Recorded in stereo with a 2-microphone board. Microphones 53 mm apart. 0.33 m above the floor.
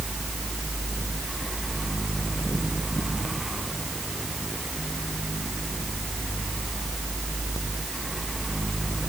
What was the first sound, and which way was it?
Only background noise.